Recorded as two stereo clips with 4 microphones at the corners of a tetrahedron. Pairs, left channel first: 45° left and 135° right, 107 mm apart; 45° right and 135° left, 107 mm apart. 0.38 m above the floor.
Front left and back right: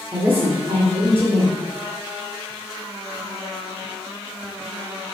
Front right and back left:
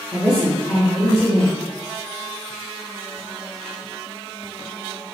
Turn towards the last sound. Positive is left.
turn(degrees=-155)